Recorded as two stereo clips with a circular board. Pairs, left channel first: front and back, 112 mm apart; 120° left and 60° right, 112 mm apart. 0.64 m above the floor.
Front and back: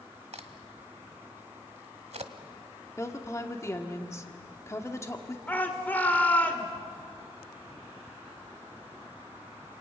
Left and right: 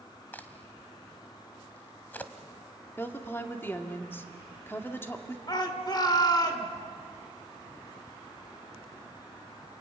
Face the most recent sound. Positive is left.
turn(degrees=75)